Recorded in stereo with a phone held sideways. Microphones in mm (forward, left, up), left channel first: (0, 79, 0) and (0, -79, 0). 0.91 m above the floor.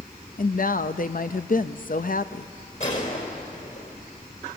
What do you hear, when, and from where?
0.4 s a woman speaking: 60° left (ahead or behind), 0.6 m
2.8 s a gunshot: 50° left (ahead or behind), 3.5 m